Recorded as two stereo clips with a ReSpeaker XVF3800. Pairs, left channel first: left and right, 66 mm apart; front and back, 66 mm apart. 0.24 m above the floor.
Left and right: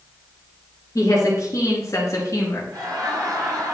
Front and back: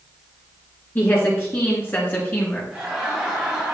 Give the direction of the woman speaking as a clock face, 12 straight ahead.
10 o'clock.